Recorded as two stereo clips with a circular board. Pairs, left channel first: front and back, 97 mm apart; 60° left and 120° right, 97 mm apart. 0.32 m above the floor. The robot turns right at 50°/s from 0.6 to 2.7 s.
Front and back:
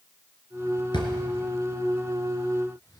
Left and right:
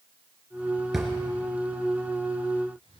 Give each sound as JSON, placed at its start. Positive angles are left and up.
{"t": 0.9, "sound": "a drawer", "azimuth_deg": -35, "distance_m": 2.0}